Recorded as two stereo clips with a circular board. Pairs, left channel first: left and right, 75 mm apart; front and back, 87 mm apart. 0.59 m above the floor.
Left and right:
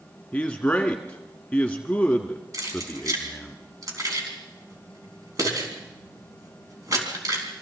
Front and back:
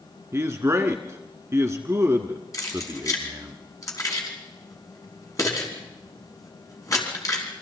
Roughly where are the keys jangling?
Ahead right.